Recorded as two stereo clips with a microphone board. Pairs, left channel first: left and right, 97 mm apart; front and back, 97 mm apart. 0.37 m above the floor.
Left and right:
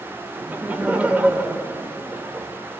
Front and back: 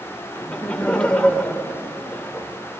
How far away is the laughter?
About 0.8 m.